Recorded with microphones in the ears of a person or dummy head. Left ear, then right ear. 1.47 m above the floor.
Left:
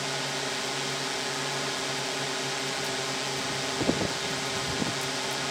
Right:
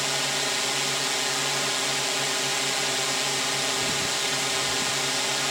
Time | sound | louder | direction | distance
0.0 | a drone | right 5 dB | 70° right (ahead or behind) | ?